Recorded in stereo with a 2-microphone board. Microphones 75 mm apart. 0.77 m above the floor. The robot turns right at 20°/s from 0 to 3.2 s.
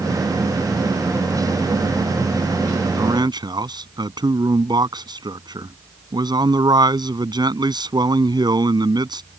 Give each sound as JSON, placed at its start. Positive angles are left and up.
{"t": 3.0, "sound": "a man speaking", "side_deg": -65}